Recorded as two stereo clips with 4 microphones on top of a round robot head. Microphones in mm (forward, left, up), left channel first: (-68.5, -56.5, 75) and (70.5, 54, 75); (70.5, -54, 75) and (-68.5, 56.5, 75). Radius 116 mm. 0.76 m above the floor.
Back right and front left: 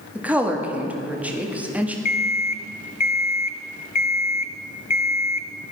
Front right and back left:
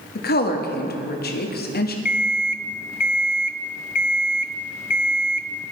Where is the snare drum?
I don't hear a snare drum.